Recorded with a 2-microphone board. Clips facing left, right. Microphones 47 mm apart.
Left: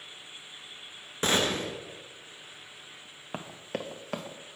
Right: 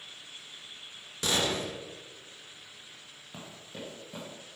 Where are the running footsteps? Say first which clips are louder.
Left 8 dB; 50° left (ahead or behind), 0.9 m; by 4.4 s 70° left (ahead or behind), 1.3 m.